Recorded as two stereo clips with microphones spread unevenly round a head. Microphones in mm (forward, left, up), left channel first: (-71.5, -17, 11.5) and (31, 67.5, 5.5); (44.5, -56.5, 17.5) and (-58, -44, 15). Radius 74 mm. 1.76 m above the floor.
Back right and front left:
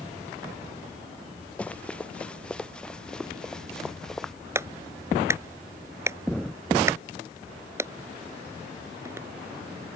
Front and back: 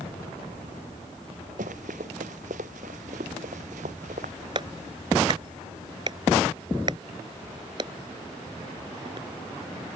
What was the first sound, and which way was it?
Running footsteps, 140° left.